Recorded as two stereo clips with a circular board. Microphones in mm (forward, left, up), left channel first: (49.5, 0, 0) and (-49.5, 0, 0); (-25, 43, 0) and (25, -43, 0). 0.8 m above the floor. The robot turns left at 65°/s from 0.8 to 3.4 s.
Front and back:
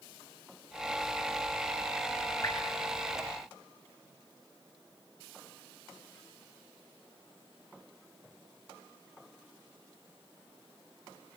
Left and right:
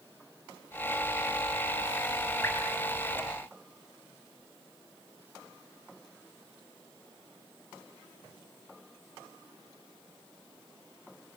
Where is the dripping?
55° left, 7 m; by 2.6 s 45° left, 7 m.